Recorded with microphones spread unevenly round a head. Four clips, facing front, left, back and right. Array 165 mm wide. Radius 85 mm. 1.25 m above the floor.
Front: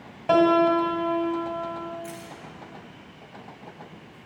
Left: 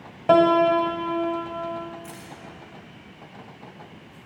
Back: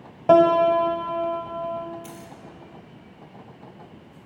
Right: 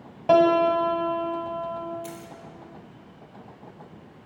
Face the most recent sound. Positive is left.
turn(degrees=-145)